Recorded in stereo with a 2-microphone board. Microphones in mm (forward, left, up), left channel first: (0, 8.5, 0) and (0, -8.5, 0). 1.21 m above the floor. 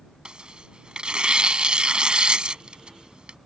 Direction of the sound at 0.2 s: 70° right (ahead or behind).